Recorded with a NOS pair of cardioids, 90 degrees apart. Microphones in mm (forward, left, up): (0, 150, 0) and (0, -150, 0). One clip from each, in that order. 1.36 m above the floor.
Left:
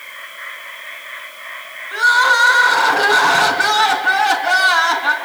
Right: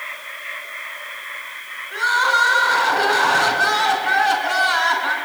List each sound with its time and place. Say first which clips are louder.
1.9 s crying: left 5 dB; 30° left, 4.5 m